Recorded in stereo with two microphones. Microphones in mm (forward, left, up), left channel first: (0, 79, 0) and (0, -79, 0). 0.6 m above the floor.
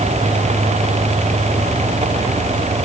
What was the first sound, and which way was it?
Only background noise.